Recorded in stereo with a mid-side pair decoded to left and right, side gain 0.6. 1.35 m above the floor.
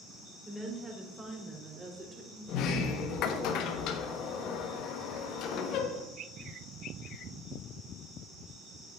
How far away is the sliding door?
About 1.3 m.